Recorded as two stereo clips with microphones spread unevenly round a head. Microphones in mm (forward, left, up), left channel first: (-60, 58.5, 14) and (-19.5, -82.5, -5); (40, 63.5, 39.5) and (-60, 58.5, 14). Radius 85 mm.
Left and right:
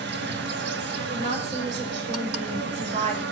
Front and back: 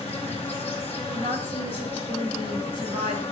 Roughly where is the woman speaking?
Behind right.